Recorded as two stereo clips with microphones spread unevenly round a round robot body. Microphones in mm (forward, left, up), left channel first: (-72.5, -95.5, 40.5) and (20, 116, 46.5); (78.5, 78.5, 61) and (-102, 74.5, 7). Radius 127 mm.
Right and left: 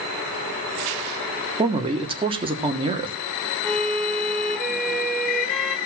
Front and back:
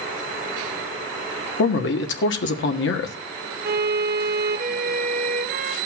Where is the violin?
160° left, 1.3 m.